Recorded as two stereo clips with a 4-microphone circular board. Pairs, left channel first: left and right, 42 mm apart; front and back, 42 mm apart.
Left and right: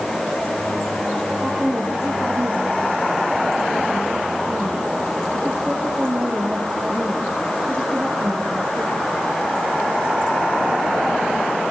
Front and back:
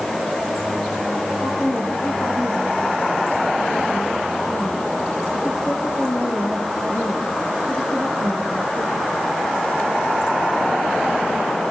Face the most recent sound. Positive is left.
turn(degrees=-25)